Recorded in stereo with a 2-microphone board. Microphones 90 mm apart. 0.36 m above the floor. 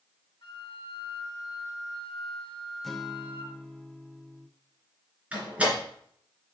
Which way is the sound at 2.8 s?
5° left (ahead or behind).